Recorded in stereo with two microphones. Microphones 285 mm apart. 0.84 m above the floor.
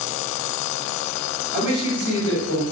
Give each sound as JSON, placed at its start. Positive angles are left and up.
{"t": 1.5, "sound": "a man speaking", "side_deg": 60, "distance_m": 1.5}